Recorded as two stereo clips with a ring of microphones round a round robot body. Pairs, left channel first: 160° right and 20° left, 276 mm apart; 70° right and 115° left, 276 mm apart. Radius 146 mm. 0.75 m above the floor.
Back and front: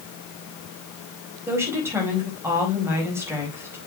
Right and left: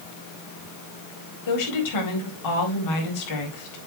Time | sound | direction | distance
1.5 | a woman speaking | 60° right | 4.5 m